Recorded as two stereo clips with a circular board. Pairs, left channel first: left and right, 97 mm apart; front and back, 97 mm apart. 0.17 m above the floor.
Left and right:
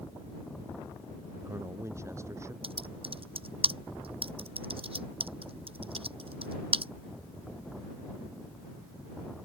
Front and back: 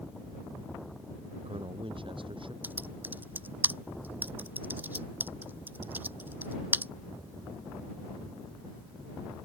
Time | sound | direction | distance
1.3 | a man speaking | 150° right | ?
2.6 | typing on a keyboard | 110° right | ?